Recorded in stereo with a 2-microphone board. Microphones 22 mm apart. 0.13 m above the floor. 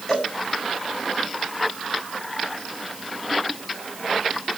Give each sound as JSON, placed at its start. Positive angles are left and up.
{"t": 0.1, "sound": "a cowbell", "side_deg": 30, "distance_m": 7.5}